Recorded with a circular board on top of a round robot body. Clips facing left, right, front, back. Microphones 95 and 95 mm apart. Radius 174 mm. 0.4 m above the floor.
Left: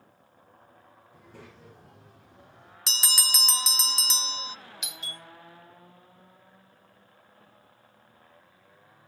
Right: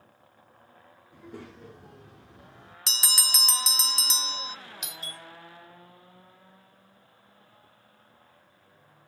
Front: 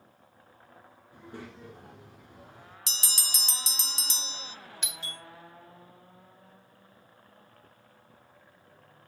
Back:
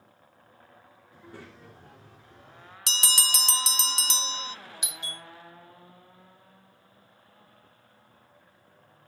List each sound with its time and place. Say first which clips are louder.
1.1 s a child speaking: right 7 dB, front 3 dB; 70° right, 6.5 m; by 2.8 s 80° right, 5.5 m
2.9 s a bell: left 1 dB, back 9 dB; straight behind, 0.6 m
4.8 s a doorbell: right 1 dB, back 1 dB; 110° right, 2.5 m